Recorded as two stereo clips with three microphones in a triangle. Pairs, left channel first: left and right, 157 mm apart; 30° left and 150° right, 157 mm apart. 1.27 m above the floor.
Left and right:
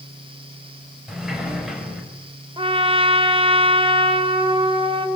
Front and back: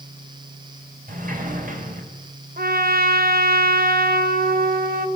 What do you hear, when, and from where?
1.1 s a sliding door: 175° right, 4.5 m
2.6 s a trumpet: 145° right, 2.5 m